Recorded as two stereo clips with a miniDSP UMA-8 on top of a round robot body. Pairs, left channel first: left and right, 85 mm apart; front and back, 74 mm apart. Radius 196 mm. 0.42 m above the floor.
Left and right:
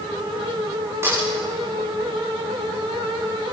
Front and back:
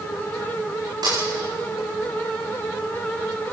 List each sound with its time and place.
1.0 s a snare drum: 150° right, 9 m